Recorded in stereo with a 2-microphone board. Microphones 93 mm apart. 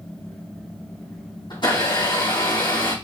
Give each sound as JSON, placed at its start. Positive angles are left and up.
{"t": 1.5, "sound": "a blender", "side_deg": 55, "distance_m": 3.5}